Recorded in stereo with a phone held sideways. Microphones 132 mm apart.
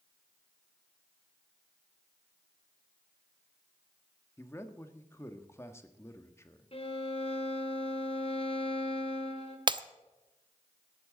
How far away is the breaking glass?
About 0.6 m.